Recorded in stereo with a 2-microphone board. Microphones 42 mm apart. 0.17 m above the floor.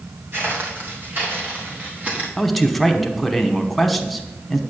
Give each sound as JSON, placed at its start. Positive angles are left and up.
{"t": 0.3, "sound": "footsteps", "side_deg": -50, "distance_m": 3.5}
{"t": 2.4, "sound": "a man speaking", "side_deg": 0, "distance_m": 1.1}